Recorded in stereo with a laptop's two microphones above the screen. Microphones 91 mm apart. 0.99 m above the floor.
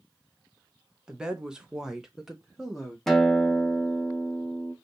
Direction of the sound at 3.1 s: 5° left (ahead or behind).